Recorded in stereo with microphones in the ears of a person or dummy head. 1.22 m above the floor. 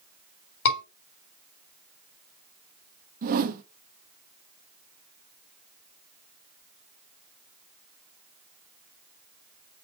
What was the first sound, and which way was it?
A scream, 80° left.